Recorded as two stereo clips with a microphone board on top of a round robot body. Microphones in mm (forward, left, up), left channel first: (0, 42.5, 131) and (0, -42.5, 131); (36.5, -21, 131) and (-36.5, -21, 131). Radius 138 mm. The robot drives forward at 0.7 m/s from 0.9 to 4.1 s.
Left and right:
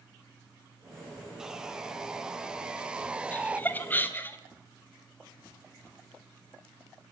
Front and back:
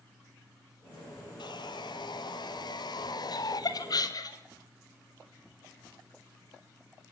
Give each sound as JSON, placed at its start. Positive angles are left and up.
{"t": 1.4, "sound": "sawing", "azimuth_deg": -5, "distance_m": 2.5}
{"t": 3.3, "sound": "laughter", "azimuth_deg": 20, "distance_m": 3.0}